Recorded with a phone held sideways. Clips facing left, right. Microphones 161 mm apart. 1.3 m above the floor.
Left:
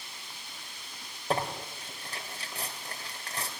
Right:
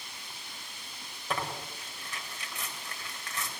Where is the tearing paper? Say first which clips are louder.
Left 4 dB; 40° left (ahead or behind), 2.5 m.